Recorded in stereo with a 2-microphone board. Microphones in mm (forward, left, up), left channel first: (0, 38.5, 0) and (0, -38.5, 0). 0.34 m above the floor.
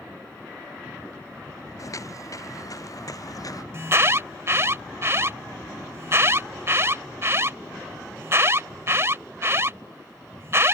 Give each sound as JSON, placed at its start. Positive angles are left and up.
{"t": 1.8, "sound": "footsteps", "side_deg": 50}
{"t": 3.7, "sound": "an alarm", "side_deg": -40}